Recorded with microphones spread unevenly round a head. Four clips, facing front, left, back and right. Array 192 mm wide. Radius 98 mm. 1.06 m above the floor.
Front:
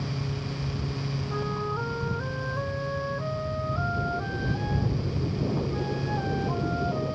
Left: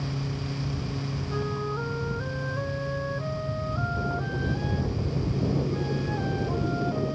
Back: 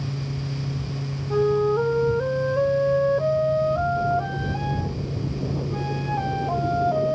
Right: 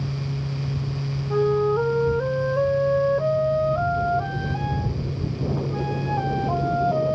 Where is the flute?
135° right.